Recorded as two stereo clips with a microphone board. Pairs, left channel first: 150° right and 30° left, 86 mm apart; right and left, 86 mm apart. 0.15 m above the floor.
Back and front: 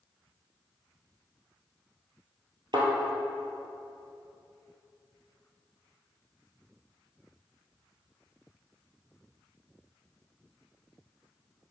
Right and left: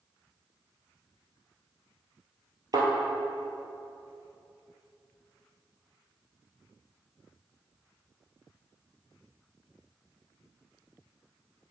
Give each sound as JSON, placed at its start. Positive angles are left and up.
{"t": 2.7, "sound": "a thud", "azimuth_deg": 55, "distance_m": 1.7}